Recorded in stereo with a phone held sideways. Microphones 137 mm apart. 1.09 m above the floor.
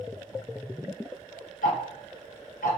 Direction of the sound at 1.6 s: 75° left (ahead or behind).